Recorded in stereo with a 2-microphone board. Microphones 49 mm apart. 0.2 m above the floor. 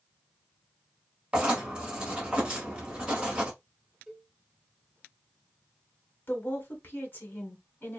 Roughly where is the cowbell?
Centre.